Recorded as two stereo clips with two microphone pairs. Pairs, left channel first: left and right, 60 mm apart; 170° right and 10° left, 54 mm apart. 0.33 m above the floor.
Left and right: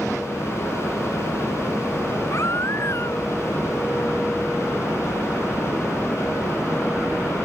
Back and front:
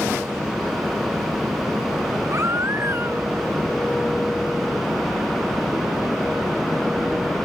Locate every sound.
2.3 s a baby crying: 50° left